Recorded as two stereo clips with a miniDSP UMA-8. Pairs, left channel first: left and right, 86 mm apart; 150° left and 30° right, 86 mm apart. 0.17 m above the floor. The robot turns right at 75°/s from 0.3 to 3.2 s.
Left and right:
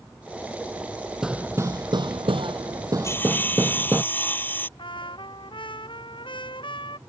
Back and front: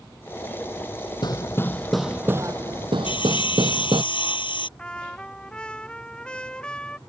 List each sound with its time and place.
1.2 s hammering: 175° right; by 4.0 s 25° right
3.0 s sawing: 145° left; by 4.7 s 155° left
4.8 s a trumpet: 70° left